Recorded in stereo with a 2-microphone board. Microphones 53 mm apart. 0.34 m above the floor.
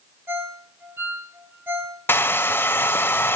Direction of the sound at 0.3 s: 40° right (ahead or behind).